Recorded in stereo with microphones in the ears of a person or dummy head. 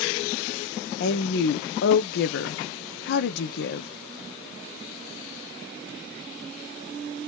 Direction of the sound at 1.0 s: 60° left (ahead or behind).